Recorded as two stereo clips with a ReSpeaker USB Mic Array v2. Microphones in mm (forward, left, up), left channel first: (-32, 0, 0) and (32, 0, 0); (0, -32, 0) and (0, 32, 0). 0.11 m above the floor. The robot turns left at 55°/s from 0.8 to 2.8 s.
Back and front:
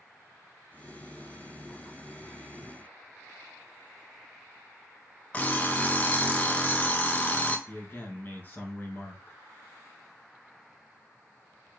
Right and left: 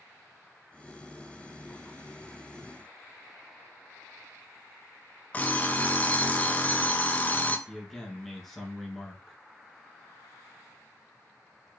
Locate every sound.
5.3 s an alarm clock: 135° right, 0.6 m
7.7 s a man speaking: straight behind, 1.3 m